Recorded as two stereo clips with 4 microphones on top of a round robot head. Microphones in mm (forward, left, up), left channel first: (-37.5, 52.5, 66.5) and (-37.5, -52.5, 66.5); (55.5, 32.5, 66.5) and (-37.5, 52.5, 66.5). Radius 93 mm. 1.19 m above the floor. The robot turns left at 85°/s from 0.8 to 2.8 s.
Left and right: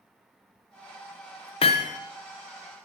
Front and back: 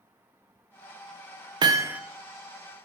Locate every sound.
1.6 s hammering: 125° left, 0.8 m; by 2.0 s 90° left, 0.8 m